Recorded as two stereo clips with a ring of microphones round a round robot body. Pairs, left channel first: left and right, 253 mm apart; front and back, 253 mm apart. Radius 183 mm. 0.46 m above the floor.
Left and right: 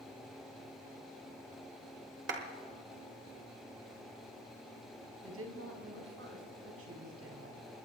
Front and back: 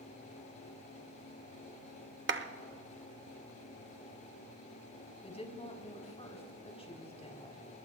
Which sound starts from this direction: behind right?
A clap, at 2.3 s.